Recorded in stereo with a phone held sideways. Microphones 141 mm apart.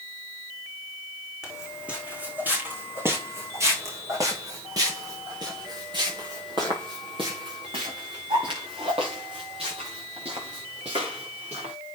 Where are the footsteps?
5° right (ahead or behind), 4 m; by 11.7 s 50° right (ahead or behind), 8 m.